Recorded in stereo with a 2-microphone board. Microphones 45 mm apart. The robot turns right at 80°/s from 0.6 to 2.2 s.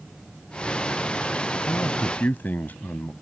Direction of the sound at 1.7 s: 90° left.